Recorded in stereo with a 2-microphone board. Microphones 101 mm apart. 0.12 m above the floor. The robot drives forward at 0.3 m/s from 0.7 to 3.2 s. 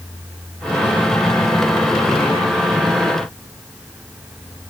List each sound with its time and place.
Only background noise.